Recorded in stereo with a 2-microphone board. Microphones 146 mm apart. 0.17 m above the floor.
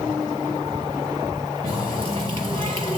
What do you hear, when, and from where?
1.6 s a running tap: 40° right (ahead or behind), 2.5 m